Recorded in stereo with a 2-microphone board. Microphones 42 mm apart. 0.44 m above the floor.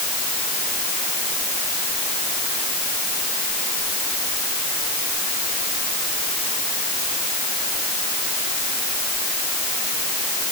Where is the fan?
I don't hear a fan.